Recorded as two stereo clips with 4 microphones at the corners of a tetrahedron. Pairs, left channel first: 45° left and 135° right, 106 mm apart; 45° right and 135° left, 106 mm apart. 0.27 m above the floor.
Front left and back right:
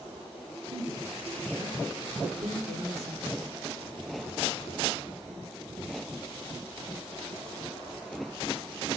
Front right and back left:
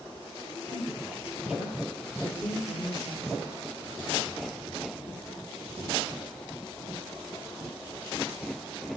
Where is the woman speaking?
145° right, 4 m; by 3.5 s 140° right, 8 m.